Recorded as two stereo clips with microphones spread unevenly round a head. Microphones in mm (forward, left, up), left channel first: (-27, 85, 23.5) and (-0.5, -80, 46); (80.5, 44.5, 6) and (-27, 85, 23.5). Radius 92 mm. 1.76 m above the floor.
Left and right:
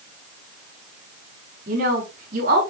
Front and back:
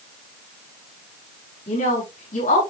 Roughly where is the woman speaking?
Ahead right.